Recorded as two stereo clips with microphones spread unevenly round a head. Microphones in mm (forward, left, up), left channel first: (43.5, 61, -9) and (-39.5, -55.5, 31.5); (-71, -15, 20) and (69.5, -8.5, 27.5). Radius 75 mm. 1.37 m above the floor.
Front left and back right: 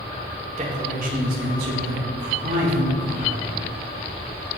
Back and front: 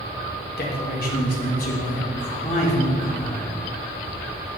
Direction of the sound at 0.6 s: 175° right.